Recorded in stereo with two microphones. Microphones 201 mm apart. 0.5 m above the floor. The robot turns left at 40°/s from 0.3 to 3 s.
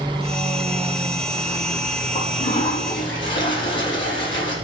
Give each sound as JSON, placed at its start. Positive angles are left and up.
{"t": 2.1, "sound": "a toilet flushing", "azimuth_deg": 150, "distance_m": 6.0}